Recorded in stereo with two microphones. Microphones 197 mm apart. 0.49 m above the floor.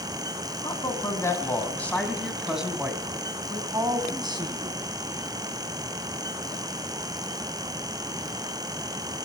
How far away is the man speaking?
About 3 m.